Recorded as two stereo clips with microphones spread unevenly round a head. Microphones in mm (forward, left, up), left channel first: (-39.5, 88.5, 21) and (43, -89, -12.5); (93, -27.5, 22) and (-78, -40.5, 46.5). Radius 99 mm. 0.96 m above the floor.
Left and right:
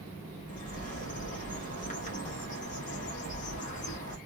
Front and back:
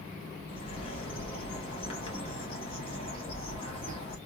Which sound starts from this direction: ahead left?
A bird, at 0.5 s.